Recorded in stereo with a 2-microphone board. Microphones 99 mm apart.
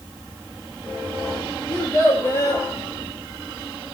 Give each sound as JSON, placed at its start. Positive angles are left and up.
{"t": 1.7, "sound": "a child speaking", "side_deg": 30, "distance_m": 3.0}